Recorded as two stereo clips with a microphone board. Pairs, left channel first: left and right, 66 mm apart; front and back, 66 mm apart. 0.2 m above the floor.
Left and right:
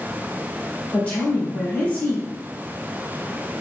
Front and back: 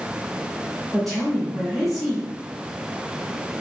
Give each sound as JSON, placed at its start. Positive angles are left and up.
{"t": 0.9, "sound": "a woman speaking", "azimuth_deg": 85, "distance_m": 1.1}